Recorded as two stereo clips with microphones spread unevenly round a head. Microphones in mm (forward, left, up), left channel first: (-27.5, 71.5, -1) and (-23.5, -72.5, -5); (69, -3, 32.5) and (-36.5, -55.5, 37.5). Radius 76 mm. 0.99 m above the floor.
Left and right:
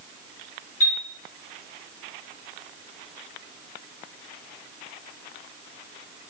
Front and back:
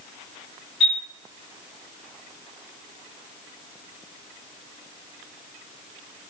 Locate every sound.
0.8 s a chime: 115° left, 1.7 m